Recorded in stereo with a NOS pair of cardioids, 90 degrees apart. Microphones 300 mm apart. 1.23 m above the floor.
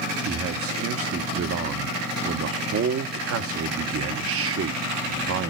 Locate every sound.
0.2 s a man speaking: 50° right, 1.0 m